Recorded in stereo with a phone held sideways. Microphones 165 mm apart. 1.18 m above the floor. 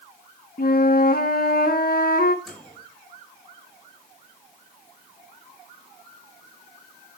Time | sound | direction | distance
0.6 | a flute | 65° left (ahead or behind) | 1.6 m
2.5 | a microwave | centre (ahead or behind) | 5 m